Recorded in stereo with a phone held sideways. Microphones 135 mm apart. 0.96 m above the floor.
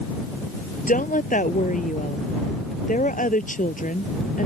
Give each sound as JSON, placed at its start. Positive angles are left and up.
{"t": 0.9, "sound": "a woman speaking", "side_deg": 75}